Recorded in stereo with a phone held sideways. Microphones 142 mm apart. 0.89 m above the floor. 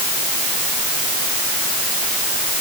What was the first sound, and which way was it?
Only background noise.